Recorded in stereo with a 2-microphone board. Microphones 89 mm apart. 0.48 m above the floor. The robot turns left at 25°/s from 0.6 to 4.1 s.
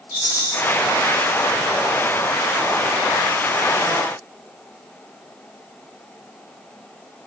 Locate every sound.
0.1 s a rattle: 25° right (ahead or behind), 1.0 m